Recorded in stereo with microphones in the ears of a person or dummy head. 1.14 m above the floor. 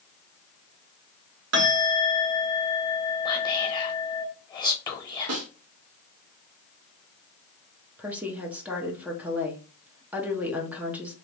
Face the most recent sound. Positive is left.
turn(degrees=-5)  # may be behind; listen again after turning